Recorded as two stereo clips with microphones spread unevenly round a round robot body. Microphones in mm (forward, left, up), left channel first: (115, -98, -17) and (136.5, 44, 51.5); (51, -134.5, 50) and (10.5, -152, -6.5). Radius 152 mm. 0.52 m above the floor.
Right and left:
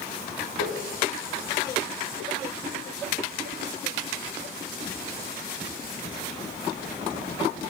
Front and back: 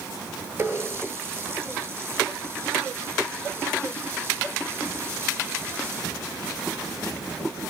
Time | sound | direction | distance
0.6 | a running tap | 130° right | 6.5 m